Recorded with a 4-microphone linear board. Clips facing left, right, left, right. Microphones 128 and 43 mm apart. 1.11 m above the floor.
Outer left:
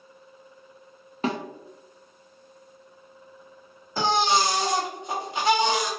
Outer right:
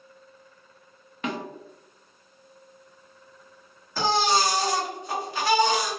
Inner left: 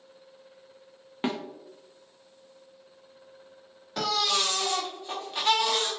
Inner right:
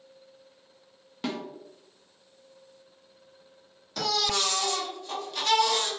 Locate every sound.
1.2 s a snare drum: 30° left (ahead or behind), 0.5 m
4.0 s a baby crying: 20° left (ahead or behind), 0.7 m